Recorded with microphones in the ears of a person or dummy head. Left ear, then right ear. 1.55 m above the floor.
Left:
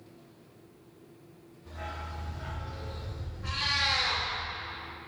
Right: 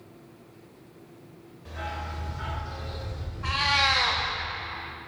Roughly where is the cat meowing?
Right.